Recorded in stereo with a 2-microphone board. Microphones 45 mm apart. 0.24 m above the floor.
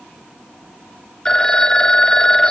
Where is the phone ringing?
20° left (ahead or behind), 0.5 m.